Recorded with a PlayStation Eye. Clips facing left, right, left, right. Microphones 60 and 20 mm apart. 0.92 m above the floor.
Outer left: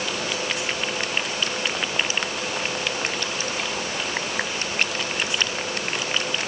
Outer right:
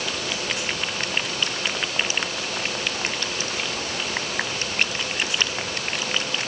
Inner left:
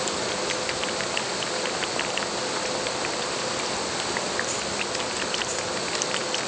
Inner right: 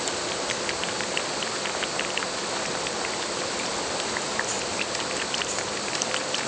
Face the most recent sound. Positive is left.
No sound to turn to.